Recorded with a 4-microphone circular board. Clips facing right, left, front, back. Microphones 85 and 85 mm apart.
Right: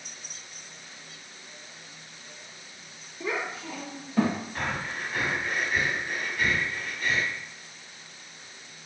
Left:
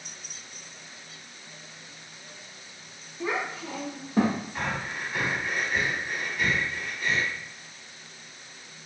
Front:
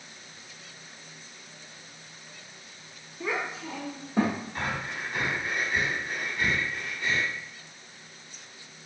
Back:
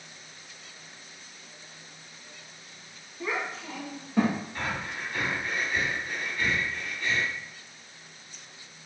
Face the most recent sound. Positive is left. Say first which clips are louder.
# even, front 1 dB
turn(degrees=5)